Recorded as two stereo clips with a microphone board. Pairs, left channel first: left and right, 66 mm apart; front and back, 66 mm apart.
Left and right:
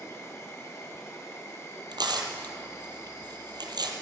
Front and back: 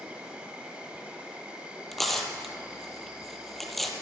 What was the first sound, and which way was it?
An insect, 115° left.